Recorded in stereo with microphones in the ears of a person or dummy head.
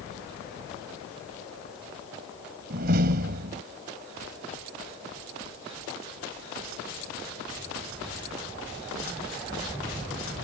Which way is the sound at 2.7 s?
55° right (ahead or behind).